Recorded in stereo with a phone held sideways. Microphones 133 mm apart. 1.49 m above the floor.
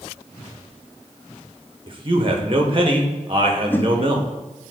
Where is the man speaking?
40° right (ahead or behind), 1.2 m.